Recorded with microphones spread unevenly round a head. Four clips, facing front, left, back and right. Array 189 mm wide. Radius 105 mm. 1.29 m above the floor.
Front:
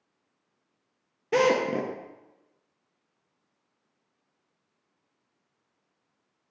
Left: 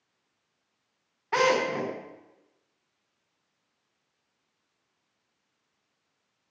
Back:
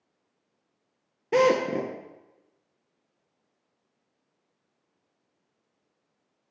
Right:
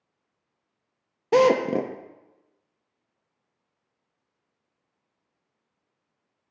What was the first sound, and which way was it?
A drill, 120° right.